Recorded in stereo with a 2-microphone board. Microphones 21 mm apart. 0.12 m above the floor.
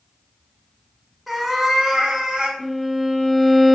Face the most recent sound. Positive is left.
turn(degrees=5)  # may be behind; listen again after turning